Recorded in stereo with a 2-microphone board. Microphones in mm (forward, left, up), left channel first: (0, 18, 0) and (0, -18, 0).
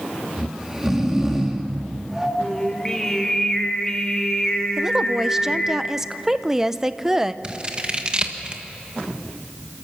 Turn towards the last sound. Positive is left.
turn(degrees=-25)  # may be behind; listen again after turning